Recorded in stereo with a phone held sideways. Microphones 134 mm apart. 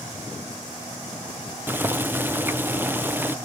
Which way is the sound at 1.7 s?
15° right (ahead or behind).